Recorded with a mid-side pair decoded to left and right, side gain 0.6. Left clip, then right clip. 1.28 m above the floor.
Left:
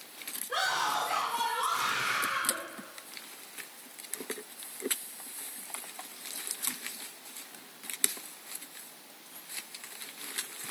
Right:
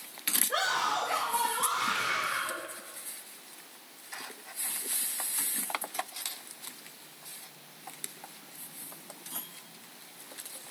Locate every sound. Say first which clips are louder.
0.5 s a scream: left 1 dB; 5° right, 4.5 m; by 2.6 s 15° left, 5 m